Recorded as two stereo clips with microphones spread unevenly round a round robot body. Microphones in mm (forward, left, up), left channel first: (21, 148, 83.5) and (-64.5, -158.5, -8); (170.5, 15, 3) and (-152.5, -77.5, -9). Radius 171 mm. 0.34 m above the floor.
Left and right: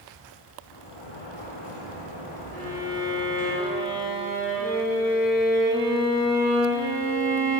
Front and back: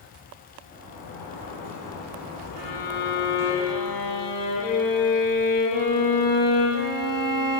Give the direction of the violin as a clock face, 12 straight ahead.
12 o'clock.